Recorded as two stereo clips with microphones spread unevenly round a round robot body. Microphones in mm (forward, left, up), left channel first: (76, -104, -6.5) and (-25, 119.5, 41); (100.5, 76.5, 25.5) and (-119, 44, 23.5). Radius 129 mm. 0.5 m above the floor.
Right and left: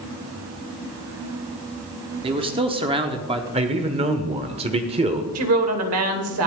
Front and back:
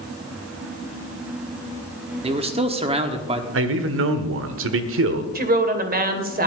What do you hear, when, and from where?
2.2 s a man speaking: straight behind, 1.2 m
3.5 s a man speaking: 175° right, 1.3 m
5.3 s a woman speaking: 145° left, 2 m